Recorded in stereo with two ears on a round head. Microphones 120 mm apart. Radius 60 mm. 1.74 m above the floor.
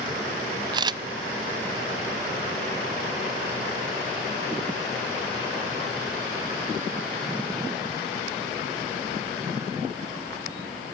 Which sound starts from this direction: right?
A camera shutter, at 0.7 s.